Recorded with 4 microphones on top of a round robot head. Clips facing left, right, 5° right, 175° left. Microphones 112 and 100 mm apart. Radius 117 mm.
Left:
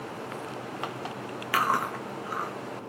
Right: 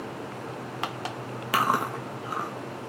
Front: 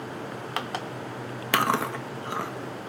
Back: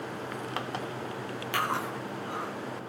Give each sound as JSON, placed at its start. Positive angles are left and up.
{"t": 1.5, "sound": "chewing", "azimuth_deg": -15, "distance_m": 1.1}